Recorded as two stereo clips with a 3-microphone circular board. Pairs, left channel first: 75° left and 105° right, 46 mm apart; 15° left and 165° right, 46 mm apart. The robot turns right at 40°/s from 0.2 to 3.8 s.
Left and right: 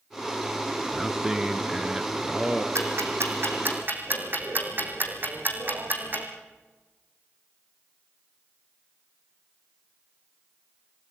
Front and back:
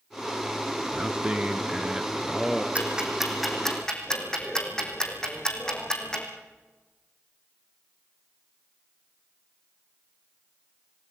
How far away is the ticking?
About 4 m.